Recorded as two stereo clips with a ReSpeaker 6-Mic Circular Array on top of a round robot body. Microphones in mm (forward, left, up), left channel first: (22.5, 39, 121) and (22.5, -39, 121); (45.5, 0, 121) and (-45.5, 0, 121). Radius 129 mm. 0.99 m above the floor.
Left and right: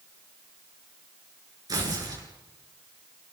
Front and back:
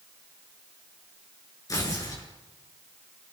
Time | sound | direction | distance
1.7 | tearing paper | 50° right | 6 m